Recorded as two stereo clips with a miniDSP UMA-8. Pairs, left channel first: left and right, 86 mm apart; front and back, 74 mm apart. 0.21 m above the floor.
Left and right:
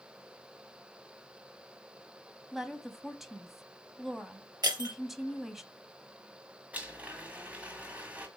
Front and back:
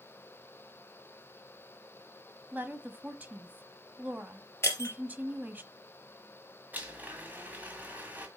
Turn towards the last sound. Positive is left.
turn(degrees=-145)